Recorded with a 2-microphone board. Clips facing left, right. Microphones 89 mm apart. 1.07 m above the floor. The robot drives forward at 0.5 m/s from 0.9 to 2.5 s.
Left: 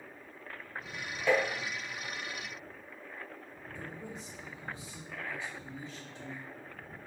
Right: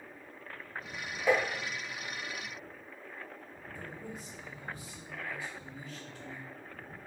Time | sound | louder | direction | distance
1.3 | tapping | even | 10° right (ahead or behind) | 1.2 m
3.8 | a man speaking | even | 25° left (ahead or behind) | 1.7 m